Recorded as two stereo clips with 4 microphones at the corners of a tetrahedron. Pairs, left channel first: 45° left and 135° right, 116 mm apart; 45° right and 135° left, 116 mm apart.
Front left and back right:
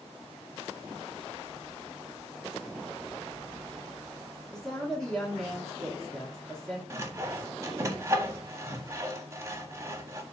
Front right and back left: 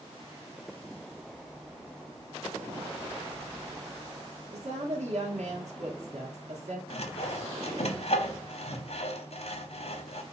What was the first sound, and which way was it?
A woman speaking, 130° left.